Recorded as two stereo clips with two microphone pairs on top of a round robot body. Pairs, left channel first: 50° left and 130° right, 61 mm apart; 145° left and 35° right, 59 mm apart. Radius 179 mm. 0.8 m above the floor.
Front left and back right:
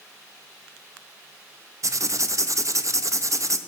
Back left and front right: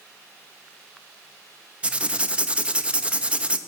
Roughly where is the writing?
Right.